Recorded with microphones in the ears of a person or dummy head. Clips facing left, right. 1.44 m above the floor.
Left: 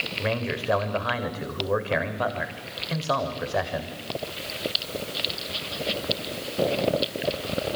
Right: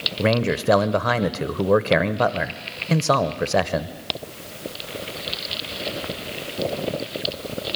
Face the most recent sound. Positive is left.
turn(degrees=-55)  # may be behind; listen again after turning